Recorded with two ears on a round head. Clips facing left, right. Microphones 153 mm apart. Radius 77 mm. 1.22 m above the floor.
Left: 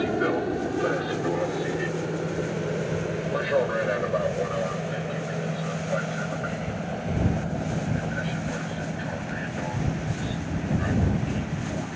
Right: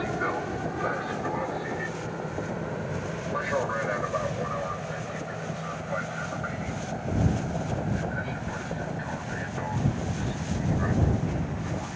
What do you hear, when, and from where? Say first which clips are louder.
0.0 s an aircraft: left 6 dB; 35° left (ahead or behind)